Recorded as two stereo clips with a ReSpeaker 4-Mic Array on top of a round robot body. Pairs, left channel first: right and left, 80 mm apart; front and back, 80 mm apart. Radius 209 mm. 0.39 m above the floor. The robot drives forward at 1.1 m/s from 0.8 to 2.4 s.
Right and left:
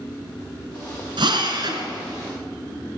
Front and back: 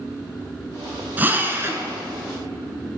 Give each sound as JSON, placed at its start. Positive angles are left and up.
{"t": 1.2, "sound": "a drill", "azimuth_deg": 110, "distance_m": 3.5}